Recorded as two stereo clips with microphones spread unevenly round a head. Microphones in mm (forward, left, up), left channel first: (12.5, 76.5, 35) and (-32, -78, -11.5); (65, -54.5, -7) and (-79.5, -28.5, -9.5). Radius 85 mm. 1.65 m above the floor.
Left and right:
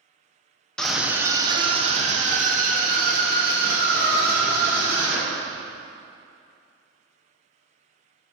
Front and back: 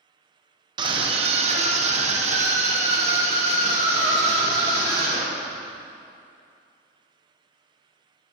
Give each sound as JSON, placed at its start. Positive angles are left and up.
{"t": 0.8, "sound": "a scream", "azimuth_deg": 130, "distance_m": 0.6}